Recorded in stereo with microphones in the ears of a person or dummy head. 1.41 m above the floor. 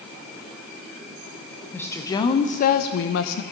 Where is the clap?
I don't hear a clap.